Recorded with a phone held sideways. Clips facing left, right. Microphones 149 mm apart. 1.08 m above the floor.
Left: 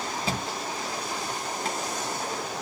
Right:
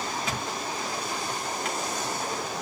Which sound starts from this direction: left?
A thud, at 0.2 s.